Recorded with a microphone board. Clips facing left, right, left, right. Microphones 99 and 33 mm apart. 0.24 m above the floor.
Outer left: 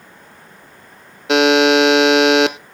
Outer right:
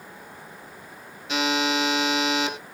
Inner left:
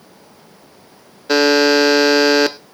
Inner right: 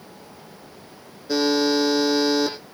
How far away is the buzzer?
About 0.8 m.